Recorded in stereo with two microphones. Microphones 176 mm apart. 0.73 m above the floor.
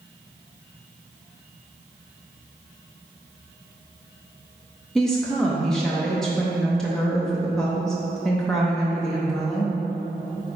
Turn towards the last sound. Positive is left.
turn(degrees=5)  # may be behind; listen again after turning